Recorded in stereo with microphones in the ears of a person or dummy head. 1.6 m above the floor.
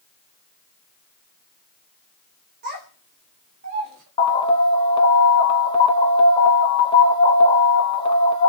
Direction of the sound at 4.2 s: 25° left (ahead or behind).